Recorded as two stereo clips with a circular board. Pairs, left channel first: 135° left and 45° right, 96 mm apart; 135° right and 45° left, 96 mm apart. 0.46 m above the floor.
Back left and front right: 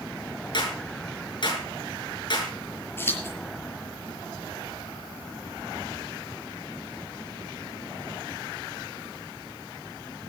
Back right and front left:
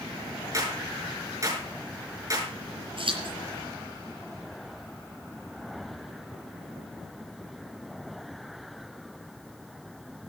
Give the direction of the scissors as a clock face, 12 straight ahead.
10 o'clock.